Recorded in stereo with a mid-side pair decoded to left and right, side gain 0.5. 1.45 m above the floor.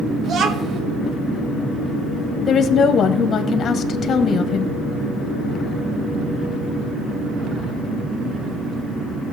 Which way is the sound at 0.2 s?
60° right.